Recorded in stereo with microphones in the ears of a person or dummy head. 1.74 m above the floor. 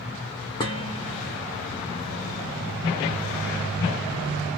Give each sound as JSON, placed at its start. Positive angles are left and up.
{"t": 0.6, "sound": "dishes clattering", "side_deg": 15, "distance_m": 0.7}